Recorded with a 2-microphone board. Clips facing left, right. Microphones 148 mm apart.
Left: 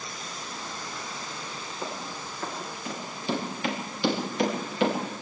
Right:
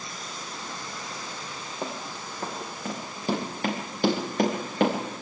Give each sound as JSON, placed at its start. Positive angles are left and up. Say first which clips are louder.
{"t": 1.8, "sound": "running footsteps", "louder": "right 2 dB", "side_deg": -40, "distance_m": 5.5}